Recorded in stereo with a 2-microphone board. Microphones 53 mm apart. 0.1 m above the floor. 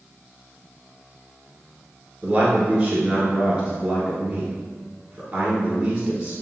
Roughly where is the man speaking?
Right.